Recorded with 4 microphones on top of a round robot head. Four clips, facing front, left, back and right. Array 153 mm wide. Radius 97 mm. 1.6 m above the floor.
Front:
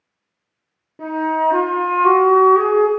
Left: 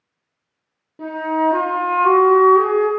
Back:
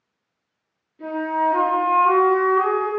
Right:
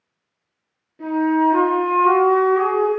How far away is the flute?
About 0.6 m.